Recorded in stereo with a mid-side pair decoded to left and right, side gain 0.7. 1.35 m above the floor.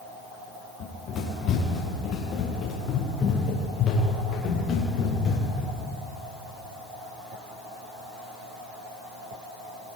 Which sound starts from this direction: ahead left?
Running footsteps, at 0.8 s.